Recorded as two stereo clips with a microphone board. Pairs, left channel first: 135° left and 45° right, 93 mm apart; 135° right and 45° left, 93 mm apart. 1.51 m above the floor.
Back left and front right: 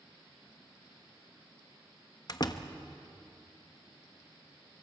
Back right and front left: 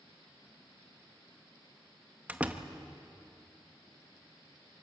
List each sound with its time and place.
2.3 s a door slam: 115° left, 1.0 m